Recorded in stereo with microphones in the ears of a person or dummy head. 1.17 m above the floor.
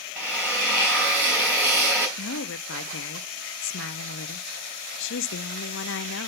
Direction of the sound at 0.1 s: 10° right (ahead or behind).